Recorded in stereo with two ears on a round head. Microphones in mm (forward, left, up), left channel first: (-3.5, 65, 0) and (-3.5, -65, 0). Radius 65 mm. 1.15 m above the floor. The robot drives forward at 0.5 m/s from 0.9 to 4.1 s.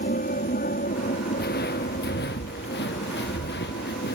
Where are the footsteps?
70° left (ahead or behind); by 4.2 s 80° left.